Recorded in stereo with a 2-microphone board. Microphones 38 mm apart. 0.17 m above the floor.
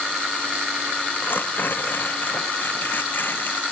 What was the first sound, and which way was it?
Tearing paper, 60° left (ahead or behind).